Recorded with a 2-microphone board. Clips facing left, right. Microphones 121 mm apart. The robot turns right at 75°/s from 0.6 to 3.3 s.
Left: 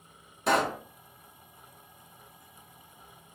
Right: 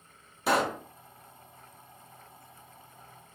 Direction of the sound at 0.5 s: 5° right (ahead or behind).